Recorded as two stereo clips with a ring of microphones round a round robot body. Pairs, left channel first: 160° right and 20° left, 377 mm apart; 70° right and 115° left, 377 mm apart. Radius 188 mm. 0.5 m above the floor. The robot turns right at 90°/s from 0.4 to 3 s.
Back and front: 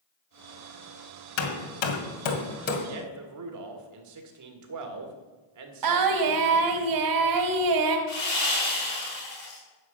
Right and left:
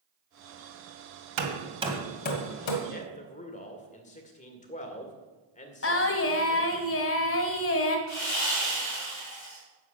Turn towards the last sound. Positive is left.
turn(degrees=-125)